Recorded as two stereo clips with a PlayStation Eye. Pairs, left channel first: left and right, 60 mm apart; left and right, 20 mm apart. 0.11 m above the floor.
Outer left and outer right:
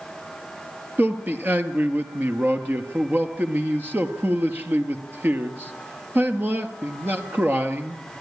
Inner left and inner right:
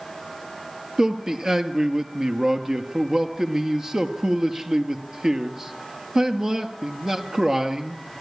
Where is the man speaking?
35° right (ahead or behind), 1.8 m.